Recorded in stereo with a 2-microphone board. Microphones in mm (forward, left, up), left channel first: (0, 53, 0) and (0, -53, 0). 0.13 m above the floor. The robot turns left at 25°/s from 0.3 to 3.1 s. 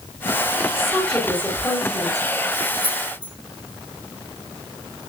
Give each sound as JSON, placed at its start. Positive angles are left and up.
{"t": 0.8, "sound": "a woman speaking", "azimuth_deg": 180, "distance_m": 9.5}
{"t": 2.8, "sound": "keys jangling", "side_deg": 55, "distance_m": 3.5}